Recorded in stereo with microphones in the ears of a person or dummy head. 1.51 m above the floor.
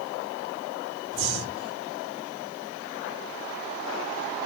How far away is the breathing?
About 1.6 m.